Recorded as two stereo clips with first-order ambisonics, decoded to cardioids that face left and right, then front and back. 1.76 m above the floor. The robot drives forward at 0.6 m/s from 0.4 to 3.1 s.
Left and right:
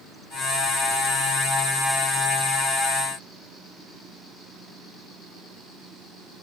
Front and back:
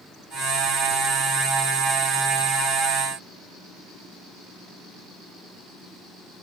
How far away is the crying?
I don't hear crying.